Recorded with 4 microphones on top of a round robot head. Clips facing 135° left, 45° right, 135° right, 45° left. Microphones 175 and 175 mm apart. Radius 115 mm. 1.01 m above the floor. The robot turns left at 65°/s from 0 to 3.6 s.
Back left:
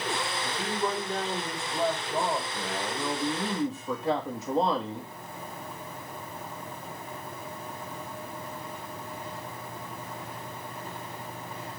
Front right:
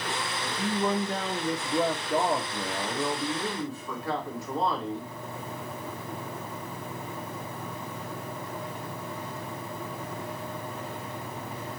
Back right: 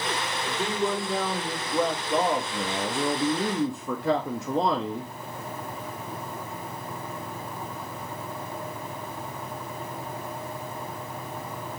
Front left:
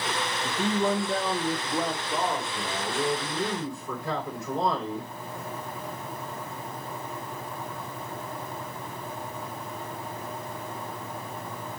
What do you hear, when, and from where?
0.5 s a man speaking: 50° left, 1.3 m; by 5.1 s 155° right, 1.3 m